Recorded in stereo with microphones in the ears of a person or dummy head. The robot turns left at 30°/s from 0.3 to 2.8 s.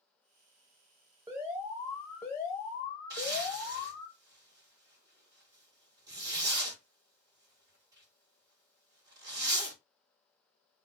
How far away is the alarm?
About 0.9 m.